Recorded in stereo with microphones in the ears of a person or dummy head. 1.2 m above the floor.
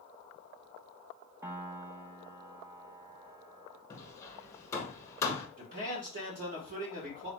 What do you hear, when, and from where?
1.4 s a piano: 15° right (ahead or behind), 0.5 m
3.9 s hammering: 15° left (ahead or behind), 0.8 m
5.6 s a man speaking: 45° right (ahead or behind), 1.4 m